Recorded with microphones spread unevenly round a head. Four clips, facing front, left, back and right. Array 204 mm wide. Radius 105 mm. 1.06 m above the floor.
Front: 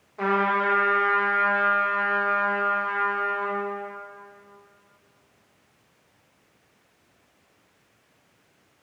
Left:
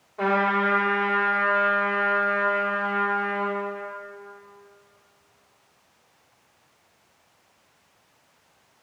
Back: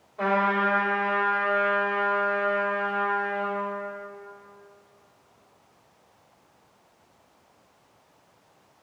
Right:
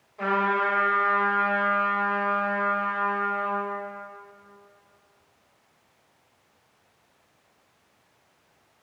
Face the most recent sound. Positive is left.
turn(degrees=50)